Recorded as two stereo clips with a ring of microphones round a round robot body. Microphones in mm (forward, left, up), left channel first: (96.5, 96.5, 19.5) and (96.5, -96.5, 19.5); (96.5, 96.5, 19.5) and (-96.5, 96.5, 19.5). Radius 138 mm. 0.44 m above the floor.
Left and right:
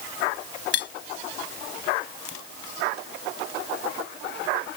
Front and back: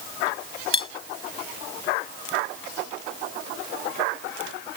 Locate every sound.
0.7 s cutlery clinking: 65° left